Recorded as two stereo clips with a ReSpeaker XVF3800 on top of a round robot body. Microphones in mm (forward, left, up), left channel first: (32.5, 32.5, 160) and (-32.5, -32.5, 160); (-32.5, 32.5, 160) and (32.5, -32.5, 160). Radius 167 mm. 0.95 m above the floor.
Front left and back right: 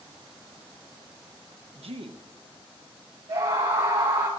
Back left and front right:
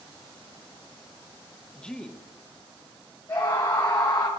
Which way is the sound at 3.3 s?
170° right.